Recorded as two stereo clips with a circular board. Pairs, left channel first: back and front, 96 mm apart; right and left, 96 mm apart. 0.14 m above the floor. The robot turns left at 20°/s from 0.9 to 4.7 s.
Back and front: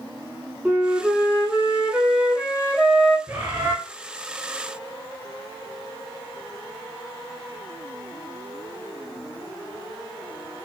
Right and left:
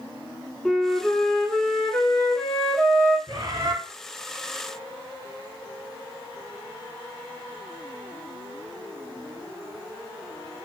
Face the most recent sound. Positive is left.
turn(degrees=30)